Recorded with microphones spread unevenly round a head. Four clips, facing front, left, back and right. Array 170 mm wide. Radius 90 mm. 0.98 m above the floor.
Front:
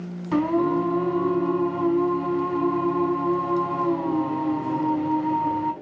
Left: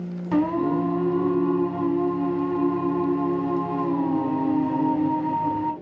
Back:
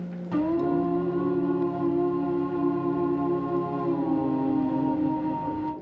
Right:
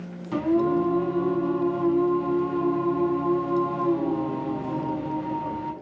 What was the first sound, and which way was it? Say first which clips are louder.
Singing: even, front 3 dB; 55° left.